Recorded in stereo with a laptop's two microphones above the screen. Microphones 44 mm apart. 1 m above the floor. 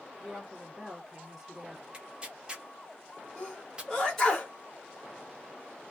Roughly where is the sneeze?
Centre.